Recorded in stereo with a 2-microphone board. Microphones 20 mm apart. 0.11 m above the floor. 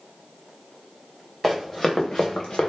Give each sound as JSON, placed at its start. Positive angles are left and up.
{"t": 1.4, "sound": "running footsteps", "side_deg": 5, "distance_m": 1.0}